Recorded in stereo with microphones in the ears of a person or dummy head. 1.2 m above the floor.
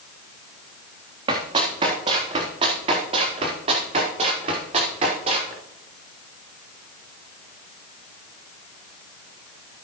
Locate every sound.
1.3 s running footsteps: 30° right (ahead or behind), 3.5 m; by 5.5 s 35° right (ahead or behind), 6 m